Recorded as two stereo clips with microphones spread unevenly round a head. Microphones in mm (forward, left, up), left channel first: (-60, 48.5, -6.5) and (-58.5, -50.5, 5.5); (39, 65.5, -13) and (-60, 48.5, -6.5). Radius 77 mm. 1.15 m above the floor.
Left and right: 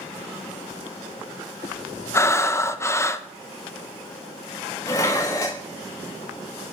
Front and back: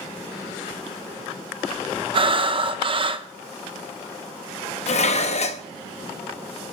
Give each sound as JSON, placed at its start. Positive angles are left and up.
{"t": 2.1, "sound": "breathing", "azimuth_deg": 150, "distance_m": 0.9}
{"t": 4.9, "sound": "dishes clattering", "azimuth_deg": 20, "distance_m": 0.8}